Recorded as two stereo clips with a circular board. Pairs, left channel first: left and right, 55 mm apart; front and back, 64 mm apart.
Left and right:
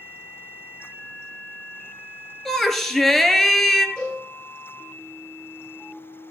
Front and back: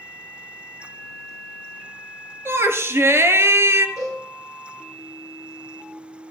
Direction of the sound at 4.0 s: 165° left.